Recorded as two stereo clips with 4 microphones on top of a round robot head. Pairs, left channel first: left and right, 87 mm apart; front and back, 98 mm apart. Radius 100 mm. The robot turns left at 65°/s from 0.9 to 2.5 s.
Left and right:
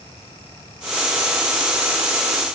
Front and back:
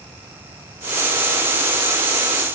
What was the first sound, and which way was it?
Only background noise.